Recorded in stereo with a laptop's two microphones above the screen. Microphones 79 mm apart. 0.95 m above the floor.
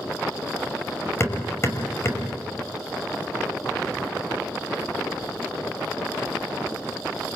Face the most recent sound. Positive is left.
turn(degrees=35)  # may be behind; listen again after turning